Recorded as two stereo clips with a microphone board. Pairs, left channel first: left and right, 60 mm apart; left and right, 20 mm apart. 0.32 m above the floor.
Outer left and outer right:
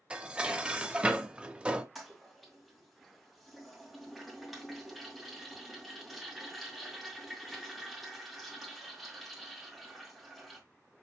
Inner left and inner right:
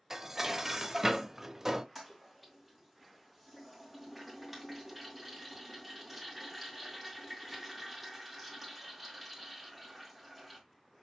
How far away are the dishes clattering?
About 0.6 m.